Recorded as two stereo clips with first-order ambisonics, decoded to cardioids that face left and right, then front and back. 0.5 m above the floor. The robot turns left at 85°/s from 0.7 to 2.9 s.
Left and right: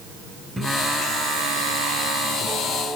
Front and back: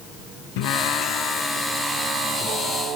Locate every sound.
0.6 s singing: 5° right, 0.9 m; by 3.0 s 165° left, 0.9 m